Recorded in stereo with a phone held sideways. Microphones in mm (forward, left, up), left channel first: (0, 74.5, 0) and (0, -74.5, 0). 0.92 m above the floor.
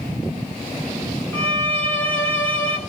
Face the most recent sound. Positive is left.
turn(degrees=15)  # may be behind; listen again after turning